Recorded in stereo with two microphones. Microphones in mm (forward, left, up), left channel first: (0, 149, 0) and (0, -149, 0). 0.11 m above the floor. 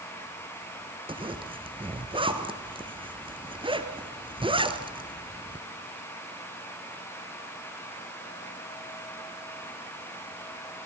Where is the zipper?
15° right (ahead or behind), 1.3 m.